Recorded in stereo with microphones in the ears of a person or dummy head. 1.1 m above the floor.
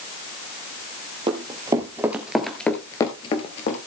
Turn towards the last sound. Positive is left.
turn(degrees=40)  # may be behind; listen again after turning